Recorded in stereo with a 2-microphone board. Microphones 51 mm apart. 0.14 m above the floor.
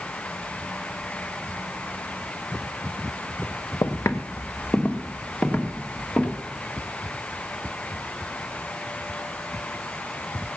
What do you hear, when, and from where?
3.8 s footsteps: 65° left (ahead or behind), 1.3 m; by 6.4 s 15° left (ahead or behind), 4.5 m